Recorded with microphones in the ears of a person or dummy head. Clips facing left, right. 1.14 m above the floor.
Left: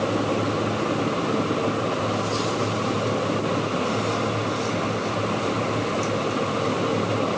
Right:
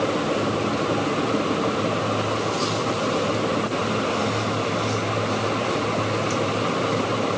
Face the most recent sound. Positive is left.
No sound to turn to.